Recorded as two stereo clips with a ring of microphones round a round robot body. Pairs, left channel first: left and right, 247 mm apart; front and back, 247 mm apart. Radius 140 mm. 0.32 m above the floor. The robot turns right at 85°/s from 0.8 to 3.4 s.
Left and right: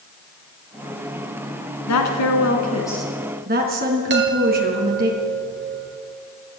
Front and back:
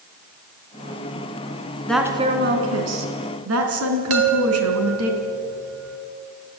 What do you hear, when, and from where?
1.9 s a woman speaking: 85° left, 3.5 m; by 5.1 s 145° right, 3.5 m
4.1 s a chime: 140° right, 2 m